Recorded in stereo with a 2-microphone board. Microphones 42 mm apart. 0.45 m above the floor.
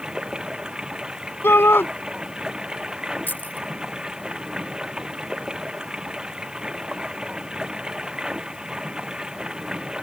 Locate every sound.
0.0 s running water: 15° right (ahead or behind)
1.4 s a shout: 60° left (ahead or behind)
3.3 s keys jangling: 50° left (ahead or behind)